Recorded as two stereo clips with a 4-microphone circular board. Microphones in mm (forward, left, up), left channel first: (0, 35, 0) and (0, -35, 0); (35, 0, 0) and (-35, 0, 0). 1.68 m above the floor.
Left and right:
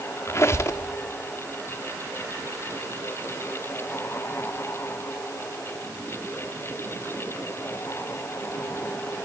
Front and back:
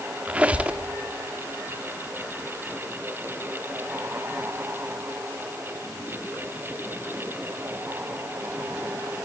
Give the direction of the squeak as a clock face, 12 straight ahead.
8 o'clock.